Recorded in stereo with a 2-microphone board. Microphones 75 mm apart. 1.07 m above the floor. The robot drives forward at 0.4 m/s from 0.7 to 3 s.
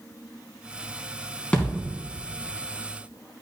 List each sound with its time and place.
1.5 s a thud: 15° left (ahead or behind), 2.5 m